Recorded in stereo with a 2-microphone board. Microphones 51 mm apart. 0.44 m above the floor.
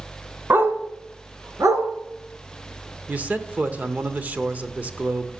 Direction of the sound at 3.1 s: 30° right (ahead or behind).